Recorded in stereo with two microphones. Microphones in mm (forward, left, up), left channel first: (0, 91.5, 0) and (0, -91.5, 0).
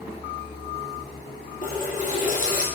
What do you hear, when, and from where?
1.6 s a running tap: 50° left (ahead or behind), 2 m